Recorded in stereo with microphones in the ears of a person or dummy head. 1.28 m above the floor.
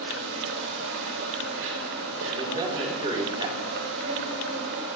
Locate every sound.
0.0 s an insect: 75° right (ahead or behind), 5.5 m
2.3 s a man speaking: 25° right (ahead or behind), 5 m